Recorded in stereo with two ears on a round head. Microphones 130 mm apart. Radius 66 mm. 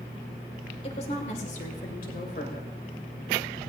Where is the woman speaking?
40° left (ahead or behind), 2 m; by 2.7 s 65° left (ahead or behind), 3 m.